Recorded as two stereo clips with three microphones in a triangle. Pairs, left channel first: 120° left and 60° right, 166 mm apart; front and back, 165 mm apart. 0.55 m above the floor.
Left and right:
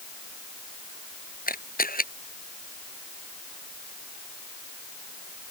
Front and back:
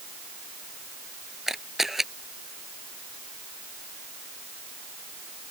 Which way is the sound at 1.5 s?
90° left.